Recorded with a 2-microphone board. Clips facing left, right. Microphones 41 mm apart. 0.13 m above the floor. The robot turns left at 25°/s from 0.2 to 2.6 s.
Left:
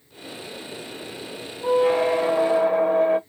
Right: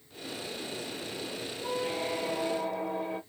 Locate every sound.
1.6 s a squeak: 80° left, 0.6 m; by 3.2 s 75° left (ahead or behind), 0.6 m